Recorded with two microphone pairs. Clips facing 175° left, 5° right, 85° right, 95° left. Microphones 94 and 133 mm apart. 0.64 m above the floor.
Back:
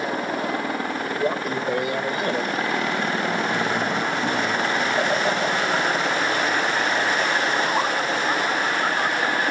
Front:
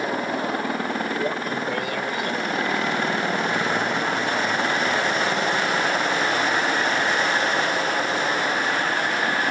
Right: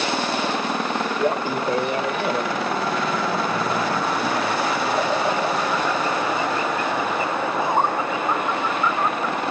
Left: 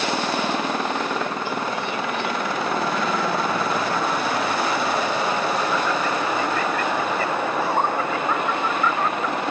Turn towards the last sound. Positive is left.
turn(degrees=-160)